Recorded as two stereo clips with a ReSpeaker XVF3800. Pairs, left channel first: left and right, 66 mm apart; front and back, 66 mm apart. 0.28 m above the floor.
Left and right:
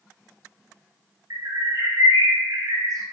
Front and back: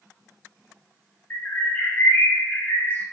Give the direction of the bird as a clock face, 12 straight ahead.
2 o'clock.